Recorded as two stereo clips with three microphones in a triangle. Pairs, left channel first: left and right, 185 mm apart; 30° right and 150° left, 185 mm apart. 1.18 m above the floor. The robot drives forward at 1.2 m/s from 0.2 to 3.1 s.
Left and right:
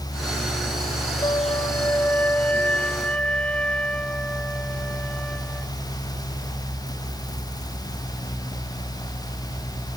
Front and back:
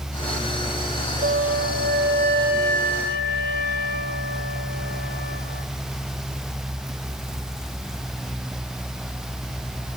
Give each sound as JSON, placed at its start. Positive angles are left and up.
{"t": 1.2, "sound": "a flute", "azimuth_deg": 150}